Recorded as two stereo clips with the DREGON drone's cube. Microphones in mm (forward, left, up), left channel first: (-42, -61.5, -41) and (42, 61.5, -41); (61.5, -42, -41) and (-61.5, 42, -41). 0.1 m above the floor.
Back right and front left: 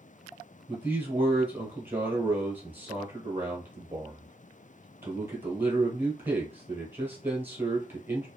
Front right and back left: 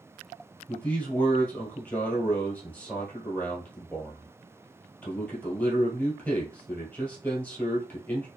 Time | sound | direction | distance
0.7 | a man speaking | 20° left | 1.1 m